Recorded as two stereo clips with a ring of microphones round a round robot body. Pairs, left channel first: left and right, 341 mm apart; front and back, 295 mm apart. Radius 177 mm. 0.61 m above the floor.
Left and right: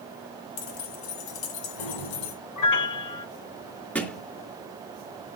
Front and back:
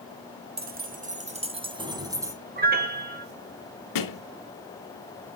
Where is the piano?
125° left, 2.5 m.